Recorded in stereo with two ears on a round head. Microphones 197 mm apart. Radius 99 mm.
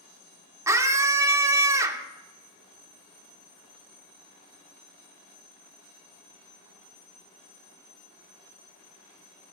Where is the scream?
15° right (ahead or behind), 0.8 m.